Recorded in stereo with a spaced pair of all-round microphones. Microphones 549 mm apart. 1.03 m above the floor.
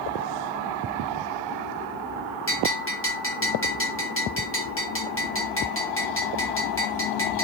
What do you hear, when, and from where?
2.5 s a bell: 25° left (ahead or behind), 0.5 m